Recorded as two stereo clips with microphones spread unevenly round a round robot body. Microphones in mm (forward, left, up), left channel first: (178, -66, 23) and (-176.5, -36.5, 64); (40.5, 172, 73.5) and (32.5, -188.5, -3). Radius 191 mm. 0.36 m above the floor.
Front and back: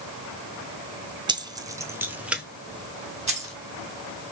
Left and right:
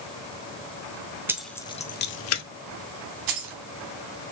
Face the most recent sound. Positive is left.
turn(degrees=-110)